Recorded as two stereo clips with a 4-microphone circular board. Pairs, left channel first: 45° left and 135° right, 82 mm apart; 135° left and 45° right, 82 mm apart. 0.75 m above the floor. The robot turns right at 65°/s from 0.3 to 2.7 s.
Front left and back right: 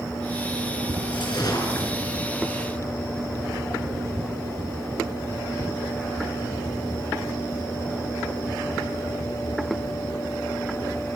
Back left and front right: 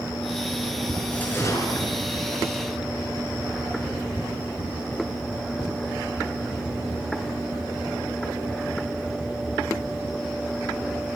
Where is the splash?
60° left, 5.5 m; by 2.1 s 125° left, 5.5 m.